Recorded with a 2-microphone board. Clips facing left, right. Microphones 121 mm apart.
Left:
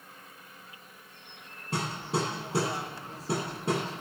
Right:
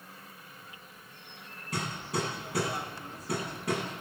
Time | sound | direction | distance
1.7 | hammering | 30° left (ahead or behind) | 8.5 m